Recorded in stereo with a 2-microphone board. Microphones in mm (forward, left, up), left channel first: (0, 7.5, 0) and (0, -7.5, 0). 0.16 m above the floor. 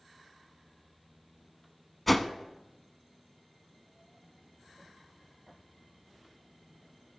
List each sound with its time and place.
2.1 s a whoosh: 10° left (ahead or behind), 0.6 m